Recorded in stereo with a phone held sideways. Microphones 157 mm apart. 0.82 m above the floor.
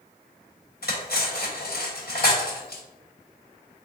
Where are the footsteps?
I don't hear footsteps.